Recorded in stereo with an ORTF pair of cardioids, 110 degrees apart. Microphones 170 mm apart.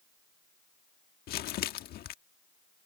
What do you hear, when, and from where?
1.3 s crumpling: 65° left